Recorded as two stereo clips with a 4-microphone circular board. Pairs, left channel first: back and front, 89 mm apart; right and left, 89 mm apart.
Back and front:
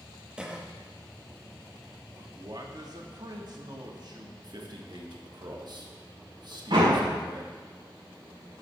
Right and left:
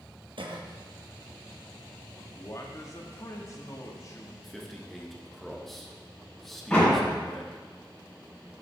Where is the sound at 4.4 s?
5° right, 1.3 m.